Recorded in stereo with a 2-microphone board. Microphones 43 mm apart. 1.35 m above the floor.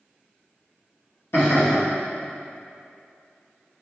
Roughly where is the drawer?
No drawer in this recording.